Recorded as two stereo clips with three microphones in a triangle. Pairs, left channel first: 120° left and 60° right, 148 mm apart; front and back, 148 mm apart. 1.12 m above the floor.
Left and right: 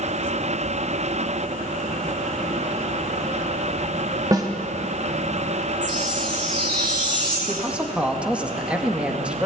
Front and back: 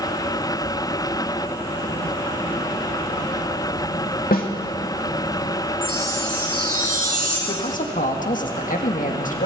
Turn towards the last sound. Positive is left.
turn(degrees=20)